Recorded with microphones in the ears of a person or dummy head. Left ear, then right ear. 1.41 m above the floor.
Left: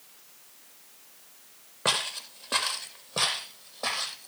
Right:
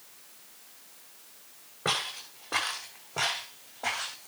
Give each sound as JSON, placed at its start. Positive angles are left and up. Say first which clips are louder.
{"t": 1.9, "sound": "footsteps", "louder": "left 3 dB", "side_deg": 65, "distance_m": 3.0}